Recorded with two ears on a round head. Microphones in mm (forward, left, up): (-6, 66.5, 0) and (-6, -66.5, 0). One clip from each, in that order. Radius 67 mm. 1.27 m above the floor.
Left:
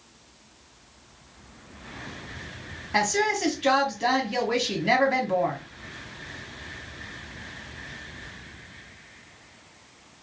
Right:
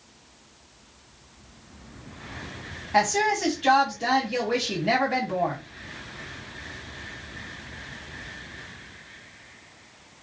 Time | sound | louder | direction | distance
2.9 | a woman speaking | right 2 dB | 20° left (ahead or behind) | 1.7 m